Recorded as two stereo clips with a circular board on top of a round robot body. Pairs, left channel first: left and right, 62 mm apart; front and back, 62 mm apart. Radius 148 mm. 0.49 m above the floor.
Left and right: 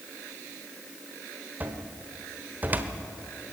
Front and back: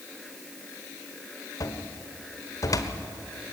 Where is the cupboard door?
30° right, 1.1 m.